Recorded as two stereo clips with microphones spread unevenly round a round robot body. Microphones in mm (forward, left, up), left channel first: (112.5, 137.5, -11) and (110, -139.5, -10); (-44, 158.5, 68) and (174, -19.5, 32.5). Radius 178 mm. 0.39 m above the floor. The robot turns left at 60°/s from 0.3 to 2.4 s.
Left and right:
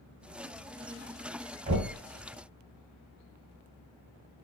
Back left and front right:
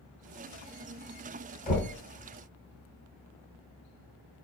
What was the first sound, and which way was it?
Knocking, 155° right.